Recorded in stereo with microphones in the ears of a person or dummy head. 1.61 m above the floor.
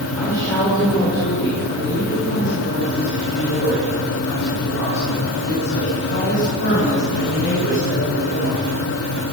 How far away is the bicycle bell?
No bicycle bell in this recording.